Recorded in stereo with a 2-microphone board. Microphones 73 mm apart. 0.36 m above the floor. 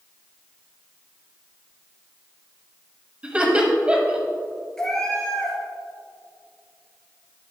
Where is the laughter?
15° right (ahead or behind), 1.8 m.